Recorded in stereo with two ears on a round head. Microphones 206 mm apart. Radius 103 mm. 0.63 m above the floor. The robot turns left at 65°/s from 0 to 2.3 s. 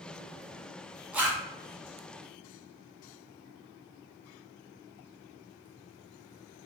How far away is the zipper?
About 0.9 m.